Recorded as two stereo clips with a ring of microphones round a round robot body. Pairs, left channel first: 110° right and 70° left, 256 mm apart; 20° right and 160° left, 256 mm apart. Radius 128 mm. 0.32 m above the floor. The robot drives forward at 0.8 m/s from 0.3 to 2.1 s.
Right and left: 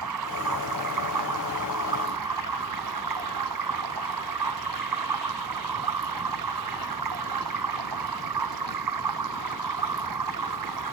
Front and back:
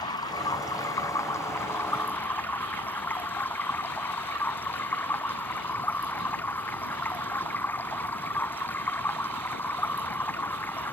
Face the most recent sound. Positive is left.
turn(degrees=60)